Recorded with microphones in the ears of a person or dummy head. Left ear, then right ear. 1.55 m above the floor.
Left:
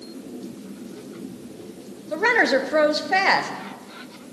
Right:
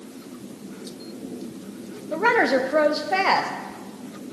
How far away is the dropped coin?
I don't hear a dropped coin.